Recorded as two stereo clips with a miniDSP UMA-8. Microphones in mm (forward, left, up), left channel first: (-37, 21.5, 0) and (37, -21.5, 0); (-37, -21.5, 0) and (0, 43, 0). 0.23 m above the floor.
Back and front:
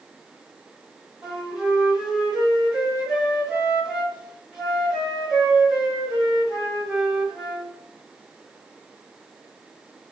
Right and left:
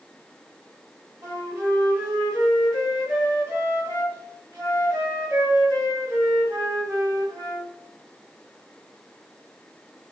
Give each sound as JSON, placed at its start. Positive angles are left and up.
{"t": 1.2, "sound": "a flute", "azimuth_deg": 50, "distance_m": 1.6}